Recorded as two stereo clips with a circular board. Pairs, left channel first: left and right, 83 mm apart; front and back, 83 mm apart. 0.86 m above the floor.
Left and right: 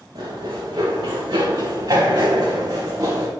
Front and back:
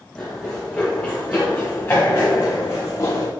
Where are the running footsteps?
80° right, 3.5 m; by 3.3 s 50° right, 2.5 m.